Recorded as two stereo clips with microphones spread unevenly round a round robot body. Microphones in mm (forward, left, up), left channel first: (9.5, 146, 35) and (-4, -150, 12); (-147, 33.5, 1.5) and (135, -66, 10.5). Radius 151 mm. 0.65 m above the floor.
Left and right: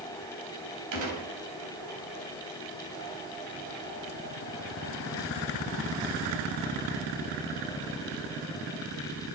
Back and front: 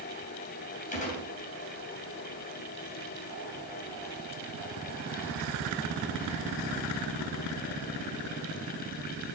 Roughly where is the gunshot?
Behind right.